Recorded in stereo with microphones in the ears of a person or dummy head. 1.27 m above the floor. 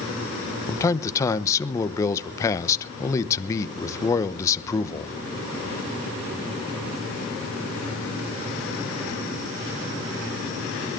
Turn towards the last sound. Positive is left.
turn(degrees=15)  # may be behind; listen again after turning